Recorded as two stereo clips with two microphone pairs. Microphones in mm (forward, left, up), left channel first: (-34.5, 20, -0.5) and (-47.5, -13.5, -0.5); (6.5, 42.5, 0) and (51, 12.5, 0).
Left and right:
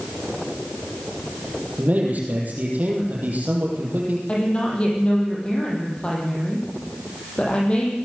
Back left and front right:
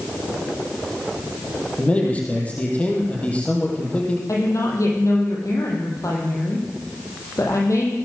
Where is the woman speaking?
130° left, 7 m.